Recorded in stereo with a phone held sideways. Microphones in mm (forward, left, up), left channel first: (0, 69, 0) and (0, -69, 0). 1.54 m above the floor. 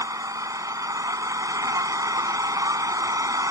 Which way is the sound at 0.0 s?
25° right (ahead or behind).